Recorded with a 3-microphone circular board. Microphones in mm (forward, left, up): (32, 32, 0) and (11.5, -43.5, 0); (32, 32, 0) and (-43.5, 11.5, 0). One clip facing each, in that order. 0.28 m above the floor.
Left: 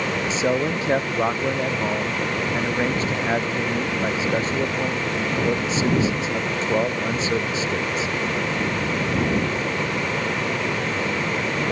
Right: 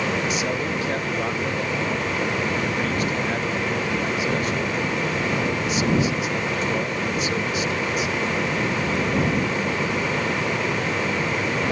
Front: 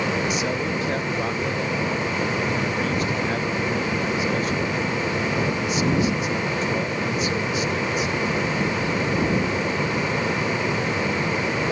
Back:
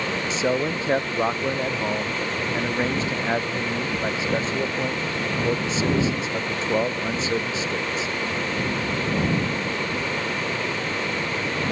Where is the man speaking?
135° left.